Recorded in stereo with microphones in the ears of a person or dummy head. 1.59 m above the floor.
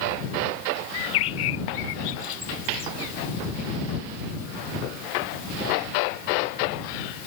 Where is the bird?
85° left.